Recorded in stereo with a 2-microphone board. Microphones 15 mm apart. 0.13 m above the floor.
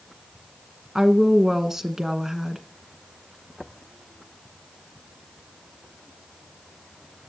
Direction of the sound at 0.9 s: 15° right (ahead or behind).